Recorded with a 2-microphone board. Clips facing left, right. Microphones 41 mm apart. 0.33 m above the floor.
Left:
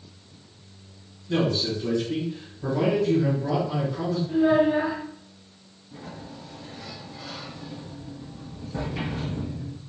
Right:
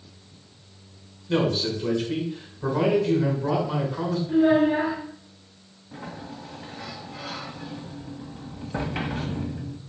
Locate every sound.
1.3 s a man speaking: 40° right (ahead or behind), 3 m
4.3 s a child speaking: 30° right (ahead or behind), 3 m
5.9 s a sliding door: 60° right (ahead or behind), 1.2 m